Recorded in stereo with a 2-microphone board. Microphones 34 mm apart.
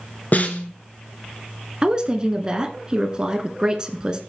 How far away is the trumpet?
I don't hear a trumpet.